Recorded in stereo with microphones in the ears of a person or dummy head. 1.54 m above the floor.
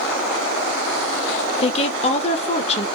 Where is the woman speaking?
40° left (ahead or behind), 0.5 m.